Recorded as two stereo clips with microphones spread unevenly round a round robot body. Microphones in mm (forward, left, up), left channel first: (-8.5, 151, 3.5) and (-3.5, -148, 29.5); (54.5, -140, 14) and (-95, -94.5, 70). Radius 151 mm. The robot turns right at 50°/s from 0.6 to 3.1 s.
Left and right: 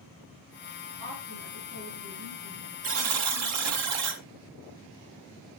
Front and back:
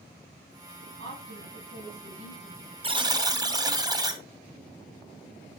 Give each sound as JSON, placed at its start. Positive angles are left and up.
{"t": 1.0, "sound": "a woman speaking", "azimuth_deg": 150, "distance_m": 5.5}
{"t": 2.8, "sound": "a buzzer", "azimuth_deg": -140, "distance_m": 1.7}